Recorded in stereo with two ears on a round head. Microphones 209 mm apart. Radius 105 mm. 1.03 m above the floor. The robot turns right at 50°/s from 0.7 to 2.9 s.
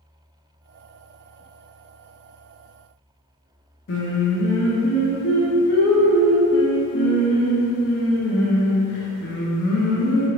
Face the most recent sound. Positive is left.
turn(degrees=50)  # may be behind; listen again after turning